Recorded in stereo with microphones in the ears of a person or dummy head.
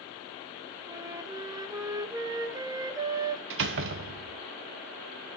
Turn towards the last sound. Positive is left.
turn(degrees=-70)  # may be behind; listen again after turning